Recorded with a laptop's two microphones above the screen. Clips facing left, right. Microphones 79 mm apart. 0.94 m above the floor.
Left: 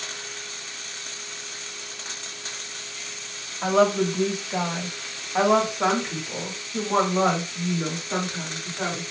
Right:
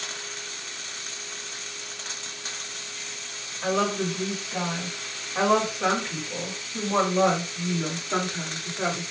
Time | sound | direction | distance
3.6 | a woman speaking | 75° left (ahead or behind) | 1.9 m